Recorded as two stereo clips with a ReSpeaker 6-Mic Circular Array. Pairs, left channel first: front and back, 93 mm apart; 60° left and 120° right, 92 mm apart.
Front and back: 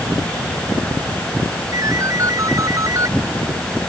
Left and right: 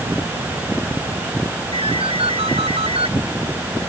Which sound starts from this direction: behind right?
A ringtone, at 1.7 s.